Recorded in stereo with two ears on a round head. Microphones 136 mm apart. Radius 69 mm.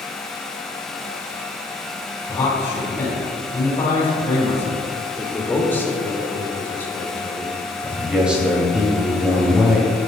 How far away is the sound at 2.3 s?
About 2.5 m.